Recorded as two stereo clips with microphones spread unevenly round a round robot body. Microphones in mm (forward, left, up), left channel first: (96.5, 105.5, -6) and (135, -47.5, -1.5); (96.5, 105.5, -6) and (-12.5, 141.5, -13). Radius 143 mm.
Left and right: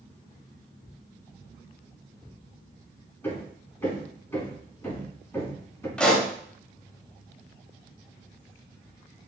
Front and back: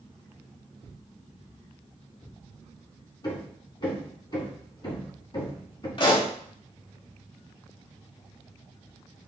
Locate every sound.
3.2 s hammering: 30° left, 4.5 m
6.0 s a pop: 20° left, 2.5 m